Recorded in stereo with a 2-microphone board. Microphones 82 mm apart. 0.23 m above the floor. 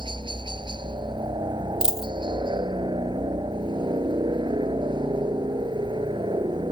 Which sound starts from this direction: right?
A helicopter, at 0.0 s.